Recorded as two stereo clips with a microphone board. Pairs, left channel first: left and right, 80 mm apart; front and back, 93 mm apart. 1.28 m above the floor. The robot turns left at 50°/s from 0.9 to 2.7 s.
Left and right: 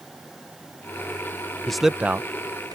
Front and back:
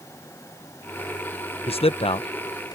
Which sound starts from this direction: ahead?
A man speaking, at 1.7 s.